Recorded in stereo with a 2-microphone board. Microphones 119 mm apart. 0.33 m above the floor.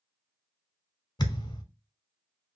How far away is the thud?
About 0.9 m.